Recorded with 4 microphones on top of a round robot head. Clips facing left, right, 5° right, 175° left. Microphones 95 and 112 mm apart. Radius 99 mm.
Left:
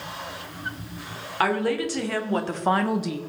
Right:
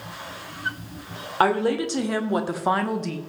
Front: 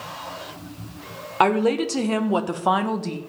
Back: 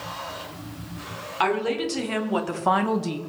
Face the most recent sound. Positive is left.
turn(degrees=140)